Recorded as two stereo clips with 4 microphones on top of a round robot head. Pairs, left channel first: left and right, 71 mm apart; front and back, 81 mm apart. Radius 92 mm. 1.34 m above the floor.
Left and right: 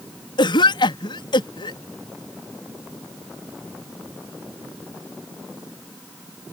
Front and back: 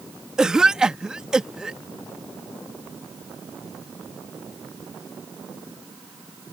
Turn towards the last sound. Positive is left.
turn(degrees=100)